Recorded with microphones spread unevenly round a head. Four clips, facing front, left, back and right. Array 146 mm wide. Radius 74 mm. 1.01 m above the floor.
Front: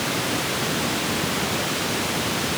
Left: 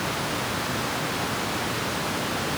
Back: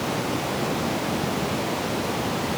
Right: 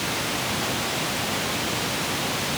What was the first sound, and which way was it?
Only background noise.